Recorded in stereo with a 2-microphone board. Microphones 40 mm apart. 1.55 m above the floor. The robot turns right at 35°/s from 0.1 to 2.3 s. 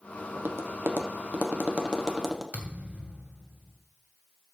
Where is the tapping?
75° right (ahead or behind), 1.2 m; by 2.4 s 10° right (ahead or behind), 1.2 m.